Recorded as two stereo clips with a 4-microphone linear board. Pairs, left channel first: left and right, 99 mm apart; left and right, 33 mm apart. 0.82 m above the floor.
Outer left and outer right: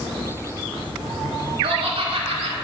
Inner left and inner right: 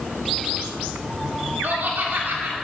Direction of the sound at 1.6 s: 75° right (ahead or behind).